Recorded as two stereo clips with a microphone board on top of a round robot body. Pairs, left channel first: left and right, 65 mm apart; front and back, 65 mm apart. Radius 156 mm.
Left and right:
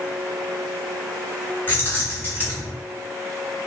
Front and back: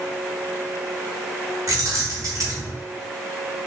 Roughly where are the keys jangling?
Behind left.